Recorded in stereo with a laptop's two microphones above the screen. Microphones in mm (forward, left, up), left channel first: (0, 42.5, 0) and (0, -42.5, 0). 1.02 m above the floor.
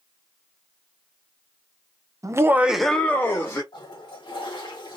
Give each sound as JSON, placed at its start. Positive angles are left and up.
{"t": 2.2, "sound": "laughter", "side_deg": -40, "distance_m": 0.5}
{"t": 3.7, "sound": "a toilet flushing", "side_deg": 75, "distance_m": 1.6}